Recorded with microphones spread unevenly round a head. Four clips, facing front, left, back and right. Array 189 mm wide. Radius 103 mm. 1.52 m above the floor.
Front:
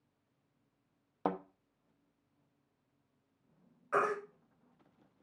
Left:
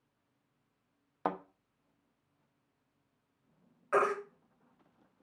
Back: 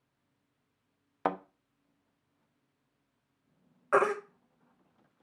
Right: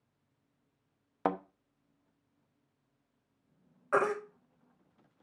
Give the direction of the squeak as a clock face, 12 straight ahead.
No squeak in this recording.